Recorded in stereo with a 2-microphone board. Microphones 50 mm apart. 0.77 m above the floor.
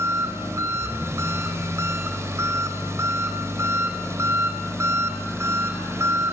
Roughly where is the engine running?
Right.